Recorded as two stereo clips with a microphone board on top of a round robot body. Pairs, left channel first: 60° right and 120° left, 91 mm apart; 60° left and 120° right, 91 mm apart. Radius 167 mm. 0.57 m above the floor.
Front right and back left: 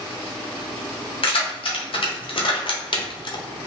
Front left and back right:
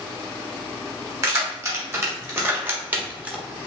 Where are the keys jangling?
60° right, 1.9 m; by 3.4 s 45° right, 1.0 m.